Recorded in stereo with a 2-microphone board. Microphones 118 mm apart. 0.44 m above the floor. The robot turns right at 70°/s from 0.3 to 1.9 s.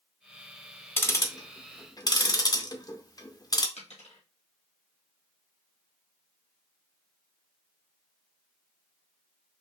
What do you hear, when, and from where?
1.0 s ticking: 20° left (ahead or behind), 0.6 m; by 3.7 s 30° left (ahead or behind), 0.6 m
3.8 s a dropped coin: 65° left (ahead or behind), 2 m